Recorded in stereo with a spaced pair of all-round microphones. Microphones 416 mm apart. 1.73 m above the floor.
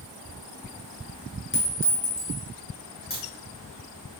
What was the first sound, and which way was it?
A clink, 30° left (ahead or behind).